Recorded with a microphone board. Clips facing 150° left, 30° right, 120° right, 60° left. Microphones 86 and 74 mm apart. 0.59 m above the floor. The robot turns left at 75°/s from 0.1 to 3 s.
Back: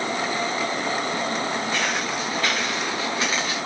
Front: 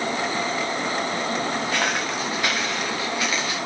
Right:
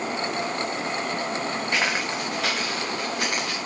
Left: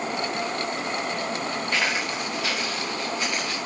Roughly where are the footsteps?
Ahead right.